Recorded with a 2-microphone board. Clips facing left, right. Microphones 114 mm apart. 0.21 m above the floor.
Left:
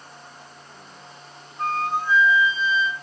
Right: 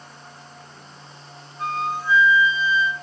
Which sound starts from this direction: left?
A flute, at 1.6 s.